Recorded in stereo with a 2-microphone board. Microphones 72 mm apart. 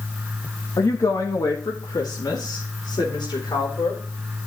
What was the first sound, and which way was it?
A woman speaking, 45° left (ahead or behind).